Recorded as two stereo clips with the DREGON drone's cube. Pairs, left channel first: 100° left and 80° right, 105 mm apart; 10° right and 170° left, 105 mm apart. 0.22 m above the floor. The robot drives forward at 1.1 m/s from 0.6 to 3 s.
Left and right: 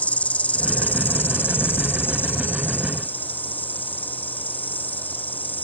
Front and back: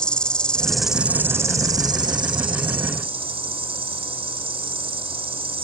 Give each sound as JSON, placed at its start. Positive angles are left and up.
{"t": 0.0, "sound": "an insect", "azimuth_deg": 55}